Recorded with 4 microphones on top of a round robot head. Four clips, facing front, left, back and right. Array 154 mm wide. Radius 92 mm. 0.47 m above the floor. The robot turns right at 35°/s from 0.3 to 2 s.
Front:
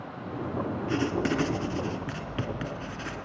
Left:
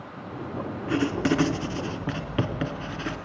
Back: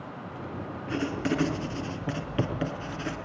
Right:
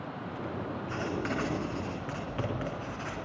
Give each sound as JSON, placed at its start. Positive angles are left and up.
{"t": 0.9, "sound": "writing", "azimuth_deg": 70, "distance_m": 4.0}